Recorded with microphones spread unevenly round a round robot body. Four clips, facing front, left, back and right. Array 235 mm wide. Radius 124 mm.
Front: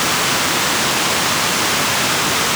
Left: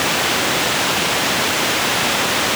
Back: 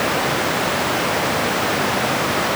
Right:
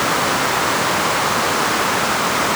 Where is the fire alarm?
No fire alarm in this recording.